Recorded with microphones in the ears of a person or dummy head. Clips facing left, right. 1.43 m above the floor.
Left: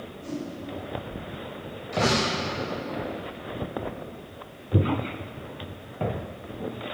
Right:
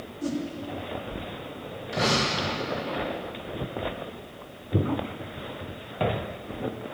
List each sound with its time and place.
0.2 s a whoosh: 85° right, 3 m
1.9 s a door slam: 10° right (ahead or behind), 7 m